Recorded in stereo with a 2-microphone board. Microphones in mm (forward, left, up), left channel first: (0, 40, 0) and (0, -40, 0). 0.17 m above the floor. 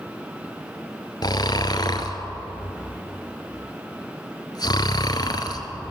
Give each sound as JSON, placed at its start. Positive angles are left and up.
{"t": 1.2, "sound": "snoring", "side_deg": 55, "distance_m": 1.4}